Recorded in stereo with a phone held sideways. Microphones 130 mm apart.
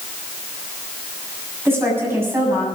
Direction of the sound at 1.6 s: 20° right (ahead or behind).